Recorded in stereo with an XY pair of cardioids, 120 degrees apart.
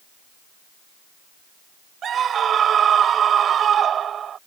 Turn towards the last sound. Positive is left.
turn(degrees=-45)